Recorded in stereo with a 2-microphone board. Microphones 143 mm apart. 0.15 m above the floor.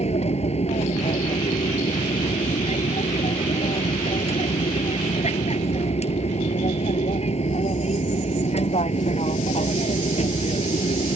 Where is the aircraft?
50° left (ahead or behind).